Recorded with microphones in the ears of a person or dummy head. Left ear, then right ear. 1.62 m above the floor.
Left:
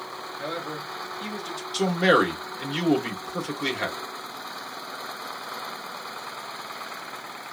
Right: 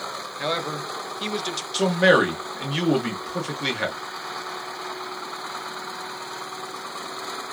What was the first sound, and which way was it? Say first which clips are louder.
A man speaking: right 7 dB; 30° right (ahead or behind).